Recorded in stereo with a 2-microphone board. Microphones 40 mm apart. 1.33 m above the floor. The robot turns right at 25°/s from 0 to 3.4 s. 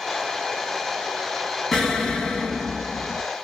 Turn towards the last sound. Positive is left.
turn(degrees=40)